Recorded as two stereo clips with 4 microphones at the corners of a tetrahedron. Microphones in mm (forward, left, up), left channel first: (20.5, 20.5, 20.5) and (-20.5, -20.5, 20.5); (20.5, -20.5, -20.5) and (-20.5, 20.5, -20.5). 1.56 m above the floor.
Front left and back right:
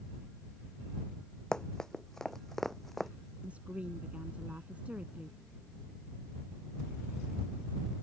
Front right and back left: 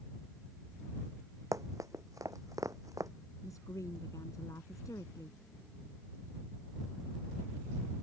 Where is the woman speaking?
65° right.